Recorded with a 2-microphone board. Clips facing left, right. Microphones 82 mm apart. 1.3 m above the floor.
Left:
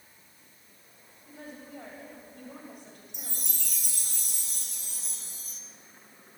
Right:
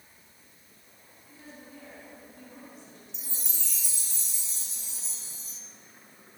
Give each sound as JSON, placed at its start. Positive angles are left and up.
{"t": 1.3, "sound": "a woman speaking", "side_deg": 60, "distance_m": 7.5}
{"t": 3.1, "sound": "a chime", "side_deg": 65, "distance_m": 2.5}